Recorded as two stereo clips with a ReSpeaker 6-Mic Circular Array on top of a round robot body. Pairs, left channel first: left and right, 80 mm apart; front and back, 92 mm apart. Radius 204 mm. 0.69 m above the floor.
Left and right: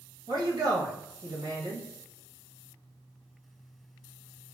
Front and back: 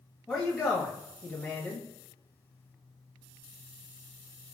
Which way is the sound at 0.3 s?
85° right.